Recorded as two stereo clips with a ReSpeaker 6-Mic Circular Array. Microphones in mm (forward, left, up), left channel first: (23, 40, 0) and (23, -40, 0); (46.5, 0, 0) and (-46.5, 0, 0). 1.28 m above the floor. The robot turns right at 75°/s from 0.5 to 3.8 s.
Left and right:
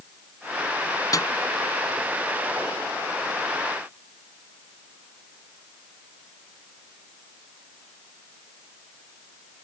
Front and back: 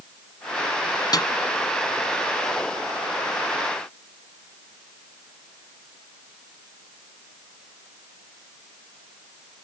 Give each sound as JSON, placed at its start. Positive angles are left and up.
{"t": 1.1, "sound": "a snare drum", "azimuth_deg": 45}